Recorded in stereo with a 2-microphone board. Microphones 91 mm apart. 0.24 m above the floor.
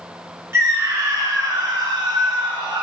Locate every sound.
0.5 s a scream: 30° right (ahead or behind), 2 m; by 2.8 s 60° right (ahead or behind), 3.5 m